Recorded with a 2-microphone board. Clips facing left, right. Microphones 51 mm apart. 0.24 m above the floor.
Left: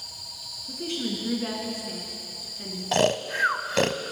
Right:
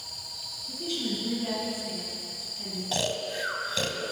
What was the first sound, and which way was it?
A woman speaking, 55° left (ahead or behind).